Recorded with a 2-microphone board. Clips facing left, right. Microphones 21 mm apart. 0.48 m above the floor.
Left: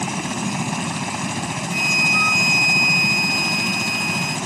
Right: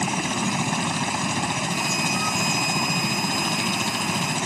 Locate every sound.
0.0 s a helicopter: 15° right (ahead or behind)
1.7 s a flute: 30° left (ahead or behind)